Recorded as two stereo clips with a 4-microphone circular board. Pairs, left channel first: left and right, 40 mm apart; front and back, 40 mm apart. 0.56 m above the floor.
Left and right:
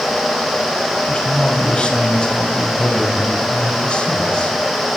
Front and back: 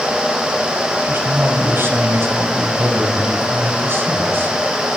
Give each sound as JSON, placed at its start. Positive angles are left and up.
{"t": 1.0, "sound": "a man speaking", "azimuth_deg": 150, "distance_m": 4.0}